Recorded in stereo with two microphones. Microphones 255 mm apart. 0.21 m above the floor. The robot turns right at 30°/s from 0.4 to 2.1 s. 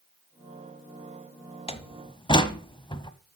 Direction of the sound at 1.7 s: 25° left (ahead or behind).